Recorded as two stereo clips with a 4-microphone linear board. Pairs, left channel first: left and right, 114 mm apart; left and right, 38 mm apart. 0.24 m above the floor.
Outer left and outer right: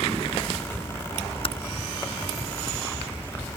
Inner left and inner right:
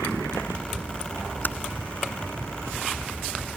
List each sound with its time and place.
1.4 s typing on a keyboard: 55° left (ahead or behind)